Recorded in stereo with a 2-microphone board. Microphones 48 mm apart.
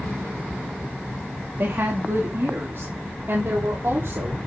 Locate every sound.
1.6 s a woman speaking: 55° right (ahead or behind), 3 m